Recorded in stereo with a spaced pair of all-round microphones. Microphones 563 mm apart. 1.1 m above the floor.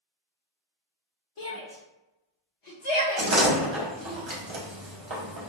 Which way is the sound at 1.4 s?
60° left (ahead or behind).